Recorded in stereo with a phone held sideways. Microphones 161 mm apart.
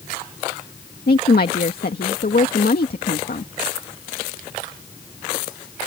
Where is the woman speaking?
70° left (ahead or behind).